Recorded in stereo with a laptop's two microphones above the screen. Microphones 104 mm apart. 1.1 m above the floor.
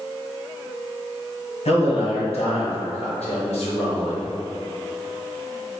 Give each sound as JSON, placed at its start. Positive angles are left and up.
{"t": 1.6, "sound": "a man speaking", "side_deg": 85, "distance_m": 1.2}